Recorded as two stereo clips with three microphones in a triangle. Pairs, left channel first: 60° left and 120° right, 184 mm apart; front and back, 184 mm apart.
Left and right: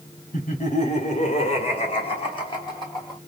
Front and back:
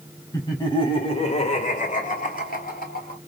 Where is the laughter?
60° left, 1.5 m; by 3.2 s 5° right, 2.0 m.